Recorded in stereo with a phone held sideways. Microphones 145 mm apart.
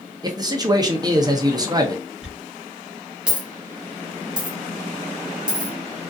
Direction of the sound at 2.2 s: 5° right (ahead or behind).